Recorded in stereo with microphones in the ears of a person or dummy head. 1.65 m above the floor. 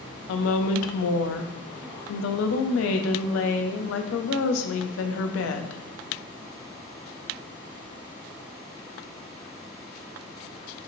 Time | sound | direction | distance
0.3 | a woman speaking | 75° left (ahead or behind) | 0.5 m